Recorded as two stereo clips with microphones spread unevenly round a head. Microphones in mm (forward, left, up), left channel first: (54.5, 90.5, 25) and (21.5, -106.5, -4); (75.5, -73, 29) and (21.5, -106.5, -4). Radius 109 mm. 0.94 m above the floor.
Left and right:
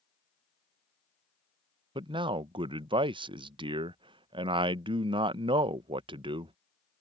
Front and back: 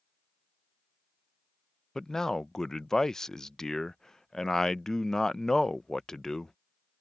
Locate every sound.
1.9 s a man speaking: 100° right